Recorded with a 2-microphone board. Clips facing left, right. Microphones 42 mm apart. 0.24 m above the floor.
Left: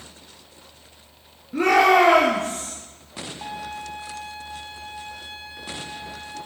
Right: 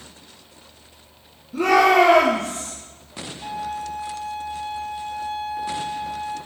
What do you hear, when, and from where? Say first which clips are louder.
1.5 s a shout: right 1 dB; 30° left (ahead or behind), 4 m; by 2.7 s 20° left (ahead or behind), 4.5 m
3.4 s a violin: right 6 dB; 80° left, 5 m